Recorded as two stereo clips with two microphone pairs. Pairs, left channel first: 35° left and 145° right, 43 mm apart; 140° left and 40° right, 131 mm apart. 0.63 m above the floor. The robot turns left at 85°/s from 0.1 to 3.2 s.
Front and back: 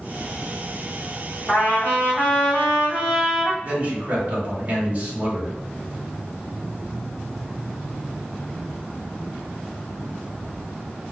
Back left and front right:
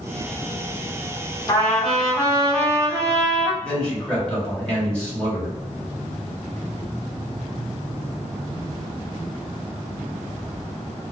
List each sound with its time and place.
1.5 s a trumpet: 85° left, 1.5 m; by 3.5 s 60° right, 1.5 m
3.6 s a man speaking: 140° right, 1.5 m